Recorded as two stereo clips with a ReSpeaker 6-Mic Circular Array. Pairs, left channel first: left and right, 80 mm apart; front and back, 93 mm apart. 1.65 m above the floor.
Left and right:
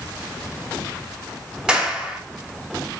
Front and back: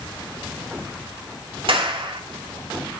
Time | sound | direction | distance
1.7 | a clap | 170° right | 3.5 m